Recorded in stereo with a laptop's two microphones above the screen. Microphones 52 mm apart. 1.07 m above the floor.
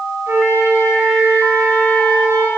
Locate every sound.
0.3 s a flute: 70° right (ahead or behind), 1.6 m